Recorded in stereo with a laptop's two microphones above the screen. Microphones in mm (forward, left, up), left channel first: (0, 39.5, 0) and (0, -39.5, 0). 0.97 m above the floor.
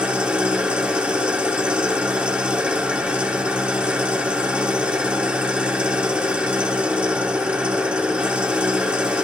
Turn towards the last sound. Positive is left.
turn(degrees=-15)  # may be behind; listen again after turning